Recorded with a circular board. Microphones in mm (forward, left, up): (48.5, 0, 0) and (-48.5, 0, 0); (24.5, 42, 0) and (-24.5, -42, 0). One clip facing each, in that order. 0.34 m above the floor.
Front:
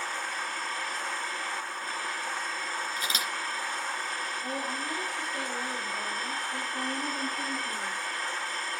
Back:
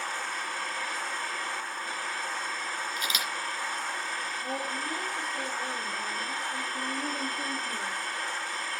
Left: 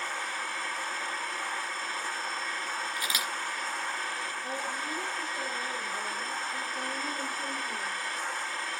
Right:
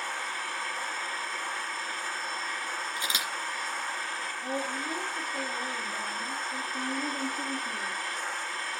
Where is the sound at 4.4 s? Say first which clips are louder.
Back 1 dB, right 5 dB; 75° right, 6.5 m.